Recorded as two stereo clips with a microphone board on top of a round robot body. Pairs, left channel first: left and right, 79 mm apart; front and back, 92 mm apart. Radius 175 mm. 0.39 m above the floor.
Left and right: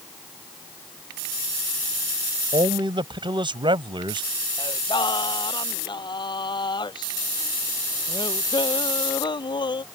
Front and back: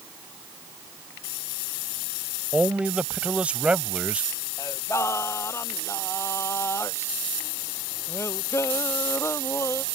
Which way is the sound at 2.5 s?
100° right.